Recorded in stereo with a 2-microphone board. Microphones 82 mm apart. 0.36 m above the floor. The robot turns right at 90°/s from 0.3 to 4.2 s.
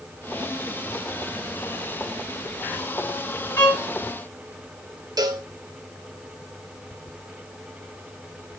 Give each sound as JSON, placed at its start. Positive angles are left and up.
{"t": 3.6, "sound": "a violin", "side_deg": 30, "distance_m": 6.0}
{"t": 5.2, "sound": "a cowbell", "side_deg": -55, "distance_m": 1.0}